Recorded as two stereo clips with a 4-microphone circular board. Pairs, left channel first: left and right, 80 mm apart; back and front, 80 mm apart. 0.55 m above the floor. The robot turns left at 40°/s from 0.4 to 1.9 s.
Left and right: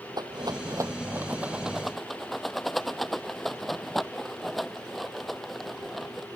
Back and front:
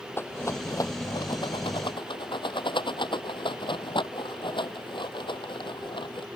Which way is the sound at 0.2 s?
120° right.